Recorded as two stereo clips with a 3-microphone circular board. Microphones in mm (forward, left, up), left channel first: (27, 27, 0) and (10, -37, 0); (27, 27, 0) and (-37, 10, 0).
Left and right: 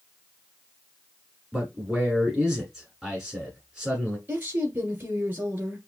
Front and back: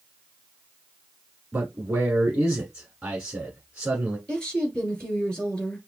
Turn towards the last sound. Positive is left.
turn(degrees=-55)